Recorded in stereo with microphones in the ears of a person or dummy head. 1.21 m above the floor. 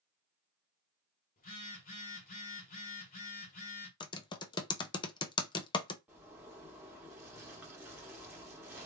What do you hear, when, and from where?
1.4 s a phone buzzing: 35° left (ahead or behind), 1.0 m
4.0 s typing on a keyboard: 20° left (ahead or behind), 0.5 m
6.1 s a zipper: 10° right (ahead or behind), 1.4 m